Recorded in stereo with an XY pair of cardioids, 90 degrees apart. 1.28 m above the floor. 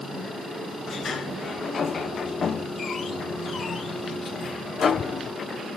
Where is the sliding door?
55° left, 0.9 m.